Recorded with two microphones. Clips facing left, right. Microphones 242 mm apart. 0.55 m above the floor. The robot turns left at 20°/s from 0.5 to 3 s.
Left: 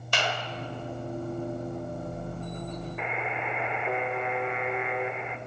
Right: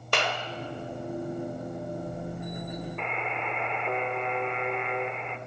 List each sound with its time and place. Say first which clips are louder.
0.1 s a clap: right 2 dB; 70° right (ahead or behind), 1.5 m
3.0 s a buzzer: left 1 dB; 5° left (ahead or behind), 0.9 m